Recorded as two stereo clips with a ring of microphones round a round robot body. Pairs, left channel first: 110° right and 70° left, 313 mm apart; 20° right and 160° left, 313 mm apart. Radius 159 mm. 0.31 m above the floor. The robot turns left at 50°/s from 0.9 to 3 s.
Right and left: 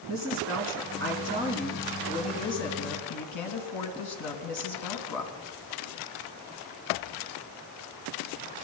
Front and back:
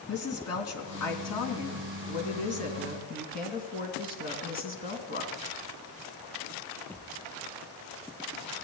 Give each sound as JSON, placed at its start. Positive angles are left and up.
{"t": 0.1, "sound": "a woman speaking", "azimuth_deg": 20, "distance_m": 3.0}